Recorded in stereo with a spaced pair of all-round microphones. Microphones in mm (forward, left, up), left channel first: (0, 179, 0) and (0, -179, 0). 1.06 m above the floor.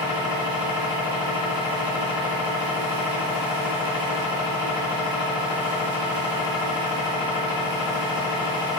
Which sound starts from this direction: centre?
A machine running, at 0.0 s.